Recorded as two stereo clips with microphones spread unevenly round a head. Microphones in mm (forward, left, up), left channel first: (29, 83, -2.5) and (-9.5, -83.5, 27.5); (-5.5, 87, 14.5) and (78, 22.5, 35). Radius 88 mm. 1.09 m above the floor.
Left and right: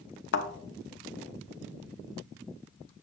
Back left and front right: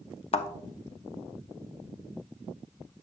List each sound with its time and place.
0.3 s a thud: 110° left, 0.9 m